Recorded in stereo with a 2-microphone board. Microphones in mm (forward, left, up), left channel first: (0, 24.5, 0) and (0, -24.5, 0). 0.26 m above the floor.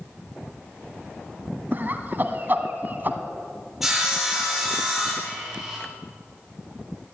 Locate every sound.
1.7 s laughter: 35° right (ahead or behind), 1.7 m
3.8 s sawing: 10° right (ahead or behind), 7 m